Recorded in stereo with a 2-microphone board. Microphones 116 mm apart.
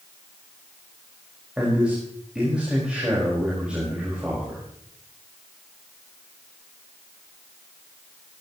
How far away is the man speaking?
About 5 m.